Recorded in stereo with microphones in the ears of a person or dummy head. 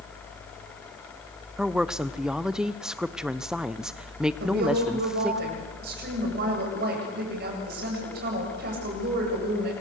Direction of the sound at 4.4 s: 55° right (ahead or behind).